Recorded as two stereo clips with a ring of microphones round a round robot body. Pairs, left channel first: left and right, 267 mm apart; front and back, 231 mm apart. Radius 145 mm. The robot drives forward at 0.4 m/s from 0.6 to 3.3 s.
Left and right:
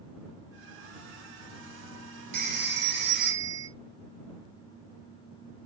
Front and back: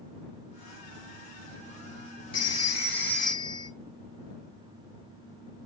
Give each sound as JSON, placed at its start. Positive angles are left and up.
{"t": 2.3, "sound": "a phone ringing", "azimuth_deg": -60, "distance_m": 1.2}